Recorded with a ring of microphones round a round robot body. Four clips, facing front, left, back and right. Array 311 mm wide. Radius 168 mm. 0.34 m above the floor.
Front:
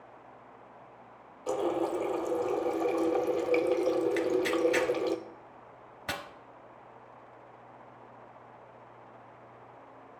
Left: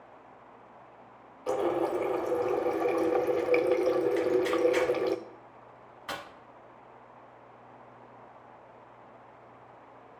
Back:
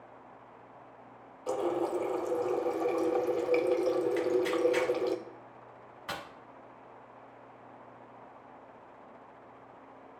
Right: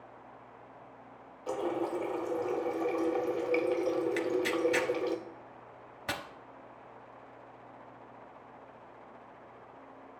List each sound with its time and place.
1.5 s a running tap: 75° left, 0.5 m
4.2 s tearing paper: 45° right, 0.8 m